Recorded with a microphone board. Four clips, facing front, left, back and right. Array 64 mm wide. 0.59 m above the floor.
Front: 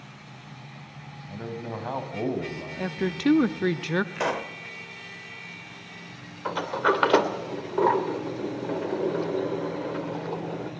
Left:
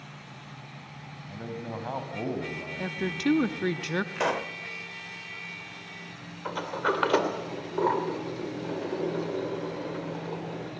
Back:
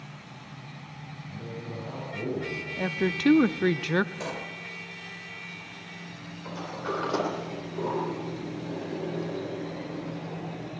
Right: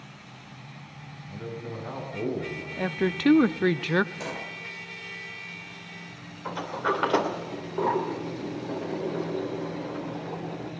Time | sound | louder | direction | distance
1.3 | a man speaking | even, front 5 dB | 30° left | 3 m
2.8 | a woman speaking | right 6 dB, back 1 dB | 100° right | 0.6 m
4.2 | a pop | left 7 dB, front 7 dB | 45° left | 1.0 m
6.5 | a sliding door | even, front 10 dB | 10° left | 2.5 m